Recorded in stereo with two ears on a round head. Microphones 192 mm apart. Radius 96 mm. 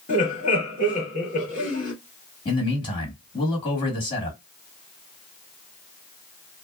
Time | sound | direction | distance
0.1 | laughter | 40° left (ahead or behind) | 1.8 m
2.5 | a man speaking | 20° left (ahead or behind) | 1.9 m